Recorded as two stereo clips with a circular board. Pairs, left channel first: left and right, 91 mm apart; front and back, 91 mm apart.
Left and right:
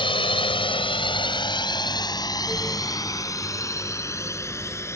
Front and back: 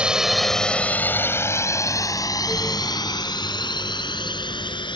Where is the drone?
100° left; by 5.0 s 30° left.